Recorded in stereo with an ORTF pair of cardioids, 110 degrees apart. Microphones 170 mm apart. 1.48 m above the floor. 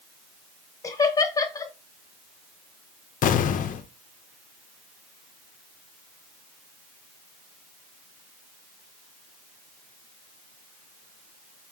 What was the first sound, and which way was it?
Laughter, 20° left.